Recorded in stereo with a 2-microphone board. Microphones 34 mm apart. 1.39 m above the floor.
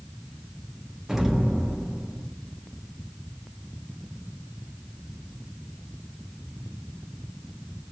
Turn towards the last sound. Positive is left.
turn(degrees=-15)  # may be behind; listen again after turning